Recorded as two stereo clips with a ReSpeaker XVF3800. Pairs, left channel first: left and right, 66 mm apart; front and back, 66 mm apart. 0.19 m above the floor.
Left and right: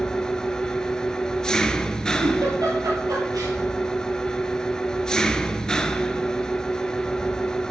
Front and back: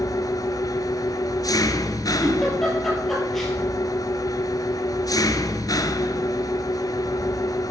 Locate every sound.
0.0 s an engine running: 10° left, 0.9 m
2.2 s a giggle: 85° right, 4.5 m